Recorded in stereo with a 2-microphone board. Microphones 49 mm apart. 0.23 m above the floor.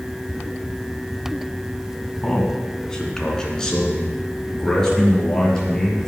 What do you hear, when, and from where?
2.2 s a man speaking: 15° left (ahead or behind), 2 m